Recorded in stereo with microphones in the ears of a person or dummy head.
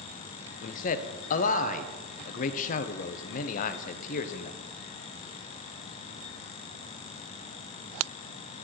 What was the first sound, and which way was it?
A man speaking, 40° left (ahead or behind).